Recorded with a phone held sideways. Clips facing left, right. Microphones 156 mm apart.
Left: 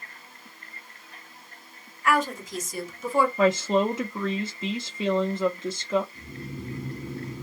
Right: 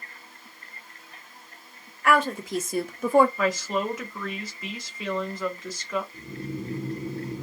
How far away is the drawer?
No drawer in this recording.